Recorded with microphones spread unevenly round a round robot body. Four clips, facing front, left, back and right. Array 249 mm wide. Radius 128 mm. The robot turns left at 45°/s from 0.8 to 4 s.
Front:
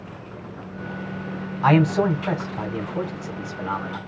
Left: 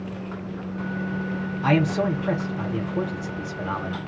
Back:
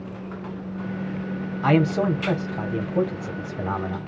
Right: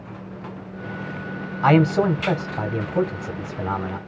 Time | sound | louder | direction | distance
1.6 | a man speaking | right 5 dB, front 2 dB | 60° right | 1.3 m